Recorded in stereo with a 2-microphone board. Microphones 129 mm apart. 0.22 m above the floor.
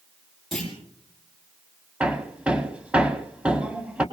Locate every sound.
0.5 s a clunk: 5° left (ahead or behind), 7.5 m
2.0 s hammering: 10° right (ahead or behind), 1.4 m